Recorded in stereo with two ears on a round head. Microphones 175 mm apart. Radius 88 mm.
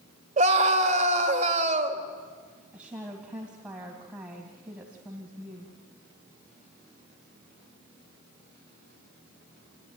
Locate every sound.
0.4 s a scream: 35° right (ahead or behind), 2.5 m
2.7 s a woman speaking: 5° right (ahead or behind), 3 m